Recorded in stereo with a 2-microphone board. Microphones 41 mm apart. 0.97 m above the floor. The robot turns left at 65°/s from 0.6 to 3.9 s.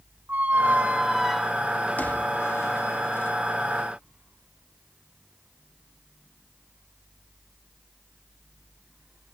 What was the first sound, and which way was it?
A squeak, 45° right (ahead or behind).